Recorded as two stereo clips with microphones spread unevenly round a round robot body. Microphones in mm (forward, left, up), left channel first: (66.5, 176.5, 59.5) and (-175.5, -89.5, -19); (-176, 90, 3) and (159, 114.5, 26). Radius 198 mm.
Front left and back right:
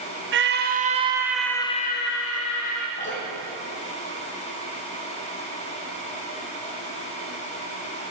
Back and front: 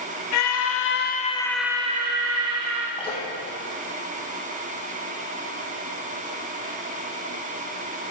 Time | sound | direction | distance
0.3 | a scream | 170° right | 1.2 m
3.0 | dripping | 110° left | 3.5 m